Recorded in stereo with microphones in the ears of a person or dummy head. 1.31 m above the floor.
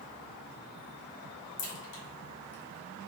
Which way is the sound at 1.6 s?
65° left (ahead or behind).